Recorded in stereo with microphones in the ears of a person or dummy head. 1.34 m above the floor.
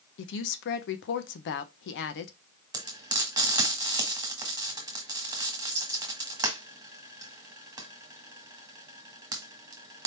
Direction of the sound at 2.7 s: 20° right (ahead or behind).